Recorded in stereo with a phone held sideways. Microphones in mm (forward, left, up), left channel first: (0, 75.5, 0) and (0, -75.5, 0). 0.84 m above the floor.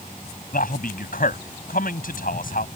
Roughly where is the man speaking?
Left.